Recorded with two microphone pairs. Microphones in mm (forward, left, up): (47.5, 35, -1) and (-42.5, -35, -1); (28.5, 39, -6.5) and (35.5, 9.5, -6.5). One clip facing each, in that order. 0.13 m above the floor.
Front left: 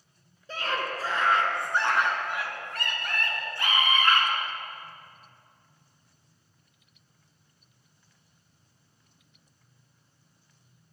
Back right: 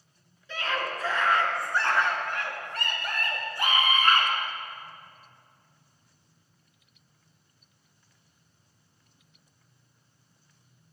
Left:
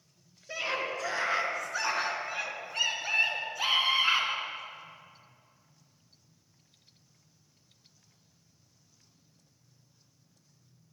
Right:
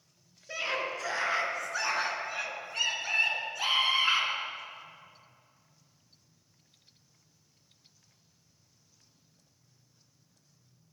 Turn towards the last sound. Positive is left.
turn(degrees=-170)